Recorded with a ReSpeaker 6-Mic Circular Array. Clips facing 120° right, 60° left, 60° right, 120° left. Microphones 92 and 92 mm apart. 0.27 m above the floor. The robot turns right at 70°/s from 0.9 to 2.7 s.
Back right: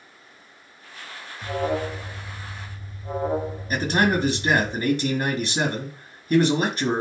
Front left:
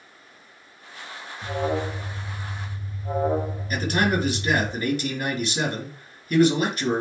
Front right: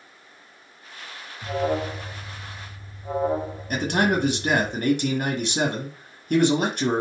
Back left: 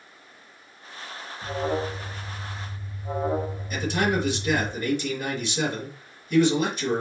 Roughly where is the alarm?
Right.